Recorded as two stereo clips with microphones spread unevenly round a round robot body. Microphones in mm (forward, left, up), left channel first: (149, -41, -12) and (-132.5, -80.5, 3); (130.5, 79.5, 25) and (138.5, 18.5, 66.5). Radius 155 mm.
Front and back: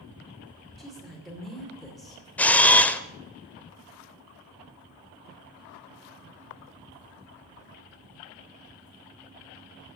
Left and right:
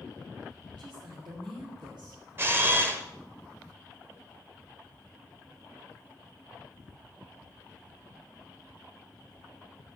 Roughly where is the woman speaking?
Right.